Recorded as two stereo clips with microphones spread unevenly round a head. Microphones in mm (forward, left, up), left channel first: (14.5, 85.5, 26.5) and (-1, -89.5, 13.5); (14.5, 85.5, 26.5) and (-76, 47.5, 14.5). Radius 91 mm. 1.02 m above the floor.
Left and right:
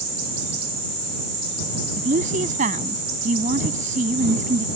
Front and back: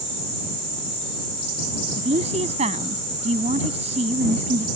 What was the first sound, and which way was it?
A woman speaking, 145° right.